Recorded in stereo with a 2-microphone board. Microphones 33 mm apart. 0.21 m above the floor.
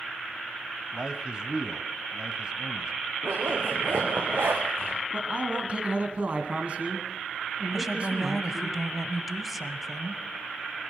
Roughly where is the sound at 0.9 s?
Right.